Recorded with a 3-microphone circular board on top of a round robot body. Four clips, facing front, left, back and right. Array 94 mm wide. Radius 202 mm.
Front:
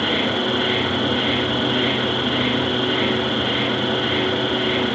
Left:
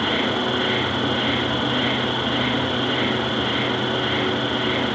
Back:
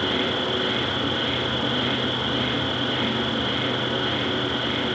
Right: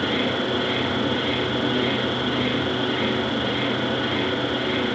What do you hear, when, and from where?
0.0 s an insect: 80° left, 1.2 m